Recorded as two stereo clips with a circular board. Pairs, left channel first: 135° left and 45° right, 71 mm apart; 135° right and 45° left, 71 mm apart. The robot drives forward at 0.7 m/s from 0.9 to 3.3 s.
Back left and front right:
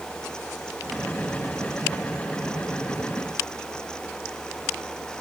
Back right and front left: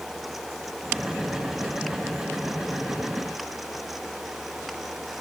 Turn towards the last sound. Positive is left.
No sound to turn to.